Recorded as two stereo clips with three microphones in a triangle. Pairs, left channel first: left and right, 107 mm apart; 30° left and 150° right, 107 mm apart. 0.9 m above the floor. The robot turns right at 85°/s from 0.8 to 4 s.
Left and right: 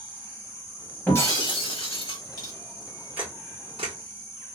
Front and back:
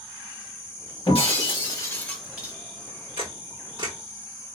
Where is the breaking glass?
20° left, 1.2 m; by 2.5 s 145° left, 1.2 m.